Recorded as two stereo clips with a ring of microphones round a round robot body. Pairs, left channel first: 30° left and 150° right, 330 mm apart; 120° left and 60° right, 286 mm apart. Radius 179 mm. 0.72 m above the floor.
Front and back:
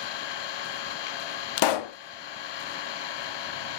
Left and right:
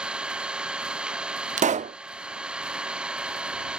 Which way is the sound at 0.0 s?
25° left.